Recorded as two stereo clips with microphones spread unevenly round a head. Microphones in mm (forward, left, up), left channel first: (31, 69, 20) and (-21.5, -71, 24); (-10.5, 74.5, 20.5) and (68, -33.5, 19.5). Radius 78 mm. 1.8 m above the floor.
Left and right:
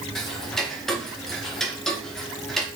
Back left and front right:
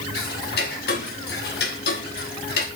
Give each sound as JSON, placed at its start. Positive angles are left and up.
{"t": 0.1, "sound": "ticking", "azimuth_deg": 160, "distance_m": 1.8}